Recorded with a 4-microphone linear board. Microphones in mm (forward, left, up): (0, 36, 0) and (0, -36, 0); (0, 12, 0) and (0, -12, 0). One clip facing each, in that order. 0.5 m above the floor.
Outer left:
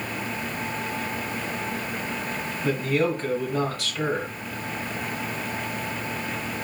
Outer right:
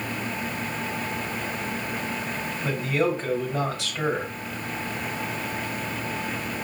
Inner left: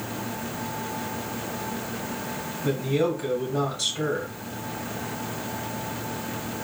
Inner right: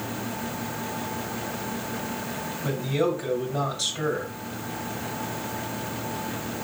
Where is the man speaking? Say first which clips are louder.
Outer left 1 dB, inner left 1 dB; 20° right (ahead or behind), 2.5 m.